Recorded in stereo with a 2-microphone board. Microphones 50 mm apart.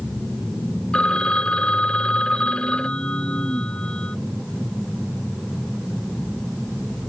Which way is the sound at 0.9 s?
20° left (ahead or behind).